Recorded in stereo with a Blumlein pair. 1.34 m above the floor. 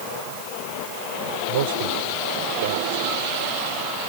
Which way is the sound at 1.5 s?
55° right.